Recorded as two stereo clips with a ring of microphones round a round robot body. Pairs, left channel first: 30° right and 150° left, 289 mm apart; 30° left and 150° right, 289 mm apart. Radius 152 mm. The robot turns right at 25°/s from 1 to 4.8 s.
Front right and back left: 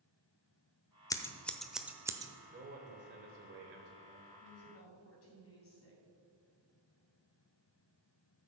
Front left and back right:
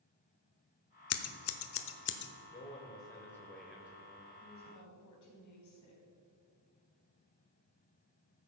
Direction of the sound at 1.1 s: 45° left.